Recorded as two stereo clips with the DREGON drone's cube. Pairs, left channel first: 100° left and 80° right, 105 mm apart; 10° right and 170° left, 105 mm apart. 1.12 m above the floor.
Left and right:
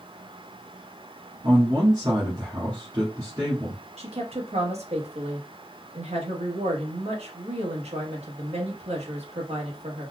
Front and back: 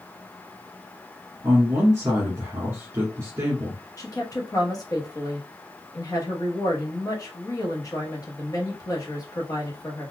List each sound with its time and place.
1.4 s a man speaking: 130° right, 1.5 m
4.0 s a woman speaking: 65° right, 1.2 m